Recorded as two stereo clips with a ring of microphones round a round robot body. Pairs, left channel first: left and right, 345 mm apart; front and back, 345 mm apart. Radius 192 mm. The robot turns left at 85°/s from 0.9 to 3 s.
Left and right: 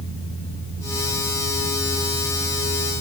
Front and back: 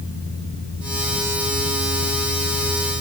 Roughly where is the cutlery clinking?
I don't hear cutlery clinking.